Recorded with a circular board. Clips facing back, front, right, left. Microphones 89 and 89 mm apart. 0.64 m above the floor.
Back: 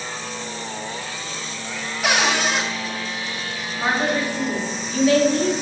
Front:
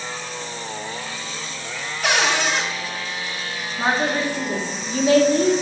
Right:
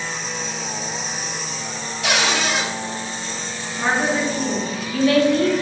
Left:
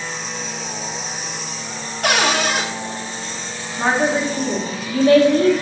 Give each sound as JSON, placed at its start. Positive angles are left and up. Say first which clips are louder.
{"t": 2.0, "sound": "a cupboard door", "louder": "even, left 3 dB", "azimuth_deg": 95, "distance_m": 0.7}
{"t": 3.8, "sound": "a woman speaking", "louder": "even, left 2 dB", "azimuth_deg": 50, "distance_m": 0.9}